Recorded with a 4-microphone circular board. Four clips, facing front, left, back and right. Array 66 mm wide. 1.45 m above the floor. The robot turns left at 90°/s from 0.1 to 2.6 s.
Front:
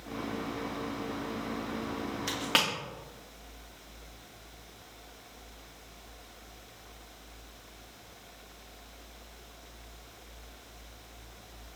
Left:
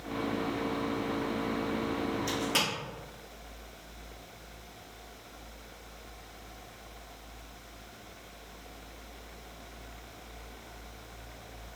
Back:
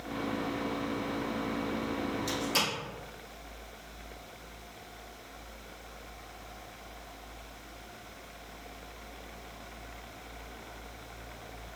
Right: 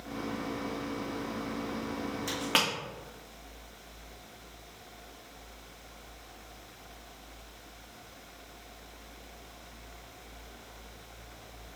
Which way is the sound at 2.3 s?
10° right.